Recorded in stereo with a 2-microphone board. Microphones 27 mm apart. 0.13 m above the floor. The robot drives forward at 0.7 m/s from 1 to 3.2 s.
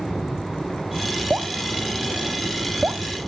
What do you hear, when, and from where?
1.3 s dripping: 55° right (ahead or behind); by 3.0 s 60° right (ahead or behind)